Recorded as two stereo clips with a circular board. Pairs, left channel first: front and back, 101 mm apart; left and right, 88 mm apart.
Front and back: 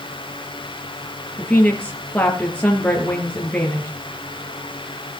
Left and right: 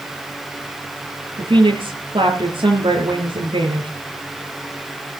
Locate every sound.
1.4 s a woman speaking: 75° right, 4.5 m